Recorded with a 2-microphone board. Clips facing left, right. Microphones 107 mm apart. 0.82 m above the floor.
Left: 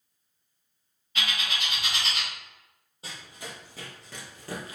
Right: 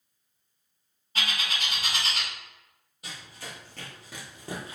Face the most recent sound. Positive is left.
turn(degrees=-30)  # may be behind; listen again after turning